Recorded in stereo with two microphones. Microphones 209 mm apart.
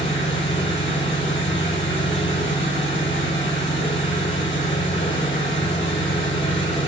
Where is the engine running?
60° left (ahead or behind), 1.5 m.